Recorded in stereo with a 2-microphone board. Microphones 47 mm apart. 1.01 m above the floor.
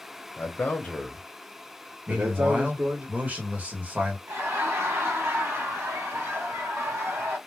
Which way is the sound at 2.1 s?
30° right (ahead or behind).